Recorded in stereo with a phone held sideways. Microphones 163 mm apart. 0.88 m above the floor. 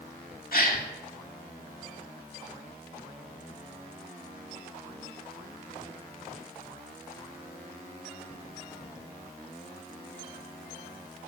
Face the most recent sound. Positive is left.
turn(degrees=65)  # may be behind; listen again after turning